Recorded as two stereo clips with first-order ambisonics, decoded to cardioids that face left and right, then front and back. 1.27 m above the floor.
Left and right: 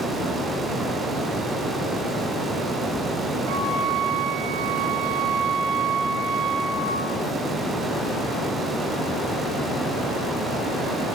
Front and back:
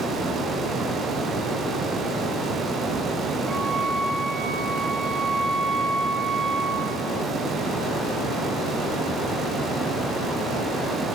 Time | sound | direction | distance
3.5 | a flute | 110° right | 3 m